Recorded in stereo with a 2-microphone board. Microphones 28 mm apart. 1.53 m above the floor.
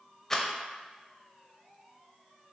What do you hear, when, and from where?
0.3 s a rattle: 15° left (ahead or behind), 0.6 m